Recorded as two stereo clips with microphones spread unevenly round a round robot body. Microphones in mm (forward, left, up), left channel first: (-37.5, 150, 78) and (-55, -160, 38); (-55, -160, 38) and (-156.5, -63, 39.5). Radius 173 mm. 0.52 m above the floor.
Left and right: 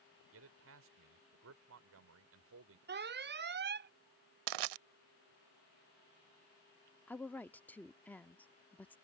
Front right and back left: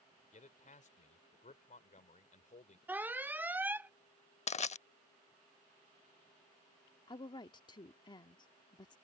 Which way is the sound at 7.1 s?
5° right.